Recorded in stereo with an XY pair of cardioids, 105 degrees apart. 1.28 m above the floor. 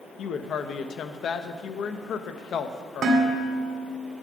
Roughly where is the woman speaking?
Ahead left.